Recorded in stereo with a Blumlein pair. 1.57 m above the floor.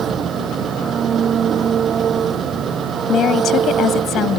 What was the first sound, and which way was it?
An engine running, 25° right.